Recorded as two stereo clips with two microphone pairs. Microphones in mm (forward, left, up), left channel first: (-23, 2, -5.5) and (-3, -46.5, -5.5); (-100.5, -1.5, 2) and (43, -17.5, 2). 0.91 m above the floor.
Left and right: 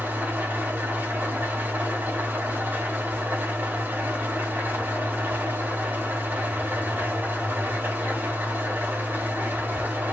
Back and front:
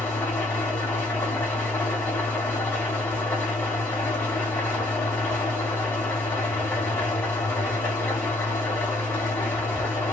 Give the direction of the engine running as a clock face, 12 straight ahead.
4 o'clock.